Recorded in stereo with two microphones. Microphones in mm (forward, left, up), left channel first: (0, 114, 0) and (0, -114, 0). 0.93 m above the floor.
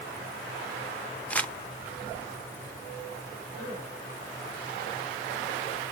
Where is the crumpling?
5° left (ahead or behind), 0.5 m.